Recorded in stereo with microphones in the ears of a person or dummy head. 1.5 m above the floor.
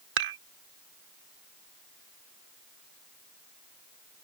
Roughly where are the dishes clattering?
Right.